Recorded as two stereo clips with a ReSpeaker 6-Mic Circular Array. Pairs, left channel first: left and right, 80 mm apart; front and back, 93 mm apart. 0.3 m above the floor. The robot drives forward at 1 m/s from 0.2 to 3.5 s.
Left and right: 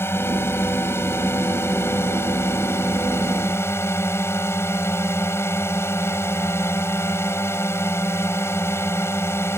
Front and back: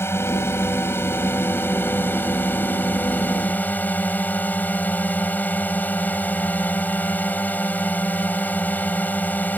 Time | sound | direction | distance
0.0 | a drone | 50° left | ?